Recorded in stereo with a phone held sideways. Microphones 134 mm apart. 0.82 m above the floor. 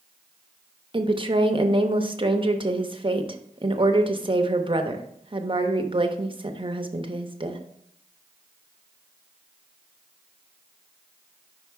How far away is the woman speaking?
About 0.7 m.